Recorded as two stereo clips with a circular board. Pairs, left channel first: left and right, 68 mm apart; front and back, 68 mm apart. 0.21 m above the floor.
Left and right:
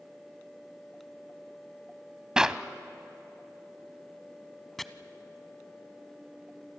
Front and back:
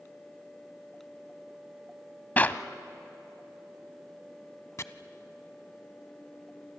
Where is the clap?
25° right, 0.8 m.